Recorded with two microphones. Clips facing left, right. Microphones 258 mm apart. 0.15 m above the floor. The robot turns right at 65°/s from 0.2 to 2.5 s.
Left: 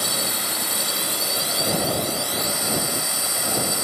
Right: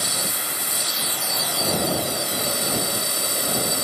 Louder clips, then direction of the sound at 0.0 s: Left 2 dB; 70° left.